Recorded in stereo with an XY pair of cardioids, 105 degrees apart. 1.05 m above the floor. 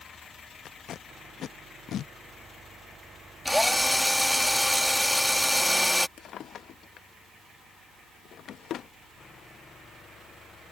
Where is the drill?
10° left.